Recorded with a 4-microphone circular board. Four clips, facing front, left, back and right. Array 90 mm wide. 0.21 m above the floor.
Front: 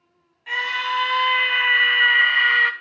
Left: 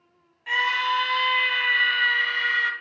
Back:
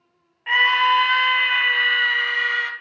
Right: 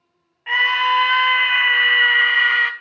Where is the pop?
I don't hear a pop.